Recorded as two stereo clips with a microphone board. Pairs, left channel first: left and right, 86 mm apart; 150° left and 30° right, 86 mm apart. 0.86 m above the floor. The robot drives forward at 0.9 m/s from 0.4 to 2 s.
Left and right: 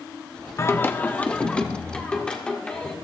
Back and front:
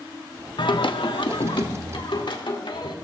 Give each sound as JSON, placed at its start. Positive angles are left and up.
{"t": 0.6, "sound": "singing", "azimuth_deg": 145, "distance_m": 0.6}